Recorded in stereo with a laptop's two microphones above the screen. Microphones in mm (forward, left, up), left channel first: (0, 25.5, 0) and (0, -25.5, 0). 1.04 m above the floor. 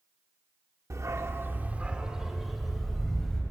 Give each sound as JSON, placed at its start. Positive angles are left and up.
{"t": 0.9, "sound": "a dog barking", "side_deg": -70, "distance_m": 1.1}